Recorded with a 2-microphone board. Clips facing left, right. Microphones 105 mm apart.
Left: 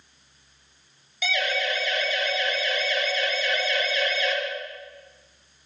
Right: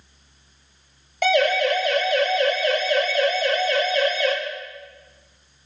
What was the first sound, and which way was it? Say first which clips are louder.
A siren: right 9 dB; 55° right (ahead or behind).